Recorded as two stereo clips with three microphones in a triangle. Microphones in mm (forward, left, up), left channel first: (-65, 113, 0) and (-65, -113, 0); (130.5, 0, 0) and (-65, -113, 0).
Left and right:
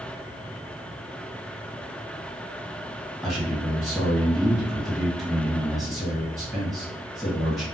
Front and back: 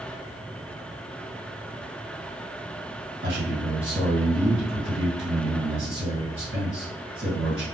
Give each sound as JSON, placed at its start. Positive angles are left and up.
{"t": 3.2, "sound": "a man speaking", "azimuth_deg": 180, "distance_m": 1.4}